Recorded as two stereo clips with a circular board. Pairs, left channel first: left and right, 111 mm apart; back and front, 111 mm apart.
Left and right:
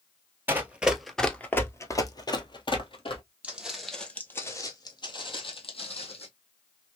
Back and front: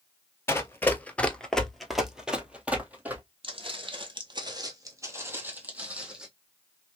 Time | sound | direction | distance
0.5 | running footsteps | 140° right | 0.8 m
3.4 | footsteps | 15° right | 1.1 m